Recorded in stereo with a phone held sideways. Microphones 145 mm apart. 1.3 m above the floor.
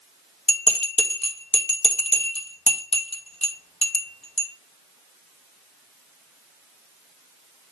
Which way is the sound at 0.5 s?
45° left (ahead or behind).